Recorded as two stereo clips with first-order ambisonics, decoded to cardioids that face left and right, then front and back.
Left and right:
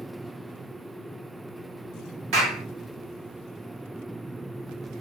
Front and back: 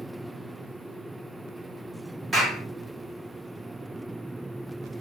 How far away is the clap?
About 1.5 m.